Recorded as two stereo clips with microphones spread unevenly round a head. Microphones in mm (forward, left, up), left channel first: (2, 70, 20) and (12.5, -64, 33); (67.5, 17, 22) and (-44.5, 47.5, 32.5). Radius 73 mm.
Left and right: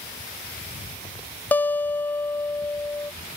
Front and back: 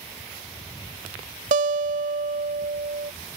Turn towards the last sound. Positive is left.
turn(degrees=170)